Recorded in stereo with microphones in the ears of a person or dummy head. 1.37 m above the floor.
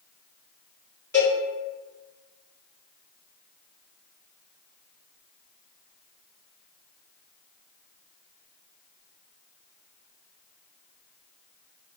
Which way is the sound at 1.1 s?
10° left (ahead or behind).